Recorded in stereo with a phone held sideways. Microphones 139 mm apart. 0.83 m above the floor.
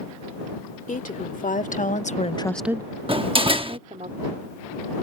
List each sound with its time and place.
0.9 s a woman speaking: 70° left (ahead or behind); by 4.1 s 65° right (ahead or behind)
3.1 s a door slam: 40° right (ahead or behind)